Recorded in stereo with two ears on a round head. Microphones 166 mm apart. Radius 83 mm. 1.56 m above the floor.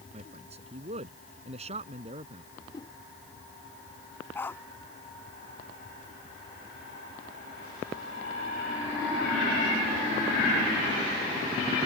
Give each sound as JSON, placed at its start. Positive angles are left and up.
{"t": 0.1, "sound": "a man speaking", "side_deg": -35}
{"t": 2.5, "sound": "a whoosh", "side_deg": 25}
{"t": 4.3, "sound": "a dog barking", "side_deg": 10}